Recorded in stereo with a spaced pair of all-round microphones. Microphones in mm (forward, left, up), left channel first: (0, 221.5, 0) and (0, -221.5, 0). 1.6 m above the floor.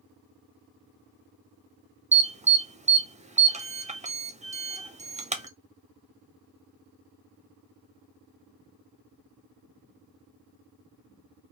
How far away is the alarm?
About 0.5 m.